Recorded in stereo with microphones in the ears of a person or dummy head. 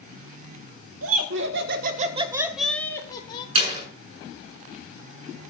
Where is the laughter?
75° right (ahead or behind), 2 m; by 3.5 s 35° left (ahead or behind), 2 m.